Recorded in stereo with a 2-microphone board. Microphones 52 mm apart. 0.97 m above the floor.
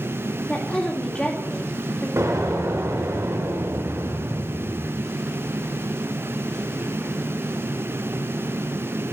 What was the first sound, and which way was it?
A woman speaking, 15° left (ahead or behind).